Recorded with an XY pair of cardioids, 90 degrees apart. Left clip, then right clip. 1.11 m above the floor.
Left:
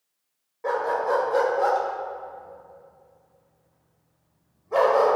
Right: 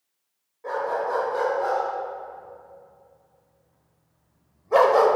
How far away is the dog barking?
About 2 m.